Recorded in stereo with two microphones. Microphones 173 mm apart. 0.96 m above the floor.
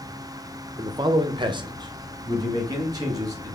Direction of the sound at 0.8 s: 25° right (ahead or behind).